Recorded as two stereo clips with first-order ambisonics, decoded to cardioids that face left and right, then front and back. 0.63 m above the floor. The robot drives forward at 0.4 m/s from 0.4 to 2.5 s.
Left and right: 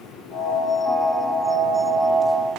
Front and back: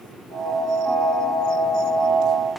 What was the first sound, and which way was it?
Only background noise.